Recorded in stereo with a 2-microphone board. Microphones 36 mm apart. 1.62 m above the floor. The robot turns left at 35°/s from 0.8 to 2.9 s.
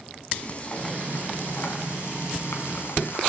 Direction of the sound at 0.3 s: 145° left.